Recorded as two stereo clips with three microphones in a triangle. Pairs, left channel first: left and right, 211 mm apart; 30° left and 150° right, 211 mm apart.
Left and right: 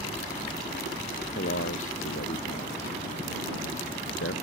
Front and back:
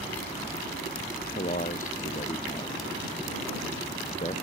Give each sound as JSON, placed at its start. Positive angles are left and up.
{"t": 1.4, "sound": "a man speaking", "azimuth_deg": 80}